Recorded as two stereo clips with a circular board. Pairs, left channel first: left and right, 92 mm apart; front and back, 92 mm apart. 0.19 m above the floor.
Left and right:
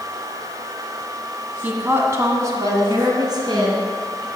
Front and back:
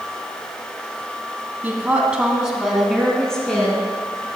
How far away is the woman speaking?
About 1.1 m.